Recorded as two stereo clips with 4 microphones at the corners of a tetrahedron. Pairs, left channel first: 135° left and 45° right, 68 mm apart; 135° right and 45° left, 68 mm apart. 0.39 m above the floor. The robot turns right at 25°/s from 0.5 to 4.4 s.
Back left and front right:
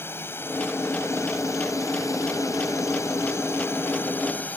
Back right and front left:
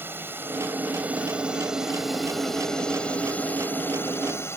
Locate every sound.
0.0 s a drone: 90° left; by 4.6 s 170° right